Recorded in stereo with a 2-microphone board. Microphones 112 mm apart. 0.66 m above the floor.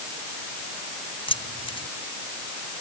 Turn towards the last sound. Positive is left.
turn(degrees=60)  # may be behind; listen again after turning